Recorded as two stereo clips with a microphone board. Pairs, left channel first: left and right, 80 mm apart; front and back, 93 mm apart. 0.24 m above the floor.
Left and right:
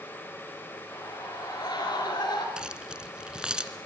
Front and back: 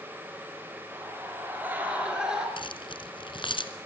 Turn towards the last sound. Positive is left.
turn(degrees=-10)